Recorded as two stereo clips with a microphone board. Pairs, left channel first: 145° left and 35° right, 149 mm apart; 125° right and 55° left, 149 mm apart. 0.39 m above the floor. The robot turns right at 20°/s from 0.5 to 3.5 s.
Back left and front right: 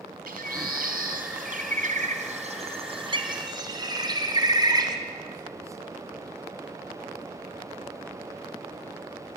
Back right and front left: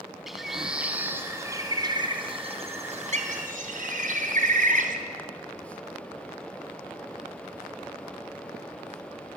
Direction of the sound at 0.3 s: 35° right.